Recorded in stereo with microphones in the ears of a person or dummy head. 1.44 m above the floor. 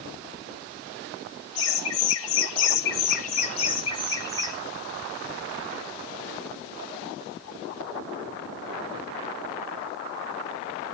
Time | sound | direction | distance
1.6 | laughter | 70° left (ahead or behind) | 1.8 m